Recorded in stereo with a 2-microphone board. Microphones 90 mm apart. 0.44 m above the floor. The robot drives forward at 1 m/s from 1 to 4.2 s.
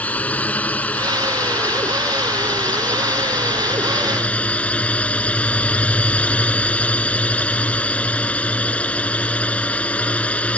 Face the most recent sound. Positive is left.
turn(degrees=15)  # may be behind; listen again after turning